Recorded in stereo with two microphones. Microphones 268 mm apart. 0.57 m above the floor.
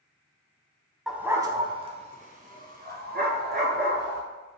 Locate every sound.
1.1 s a dog barking: centre (ahead or behind), 0.8 m; by 4.2 s 40° right (ahead or behind), 2.5 m